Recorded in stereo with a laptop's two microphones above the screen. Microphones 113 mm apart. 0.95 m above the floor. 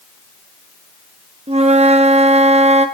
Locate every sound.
1.5 s a flute: 70° right (ahead or behind), 0.6 m